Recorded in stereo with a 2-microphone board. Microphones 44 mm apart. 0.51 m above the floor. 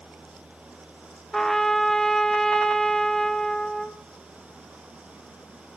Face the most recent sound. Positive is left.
turn(degrees=5)  # may be behind; listen again after turning